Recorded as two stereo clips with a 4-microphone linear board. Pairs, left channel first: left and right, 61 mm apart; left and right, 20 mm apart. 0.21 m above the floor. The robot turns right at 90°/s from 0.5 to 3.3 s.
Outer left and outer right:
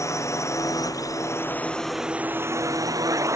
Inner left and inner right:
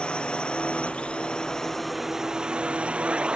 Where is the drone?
60° left (ahead or behind); by 3.4 s 60° right (ahead or behind).